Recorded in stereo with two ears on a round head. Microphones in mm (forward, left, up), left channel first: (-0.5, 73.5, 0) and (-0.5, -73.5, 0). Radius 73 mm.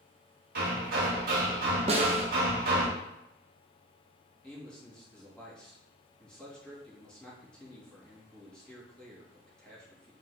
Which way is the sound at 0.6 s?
60° right (ahead or behind).